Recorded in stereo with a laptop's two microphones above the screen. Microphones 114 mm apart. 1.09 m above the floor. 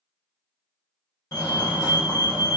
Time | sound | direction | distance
1.3 | a fire alarm | 35° left (ahead or behind) | 1.9 m